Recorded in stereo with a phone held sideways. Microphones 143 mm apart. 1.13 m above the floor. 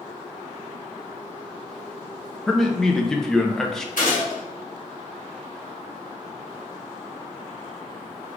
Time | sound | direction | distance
2.5 | a man speaking | 5° left (ahead or behind) | 0.6 m
4.0 | a gunshot | 65° left (ahead or behind) | 1.6 m